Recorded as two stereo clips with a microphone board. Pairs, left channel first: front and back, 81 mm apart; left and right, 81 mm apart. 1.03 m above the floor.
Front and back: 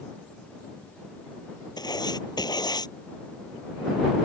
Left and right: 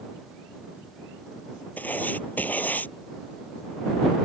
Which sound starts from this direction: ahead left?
Writing, at 1.8 s.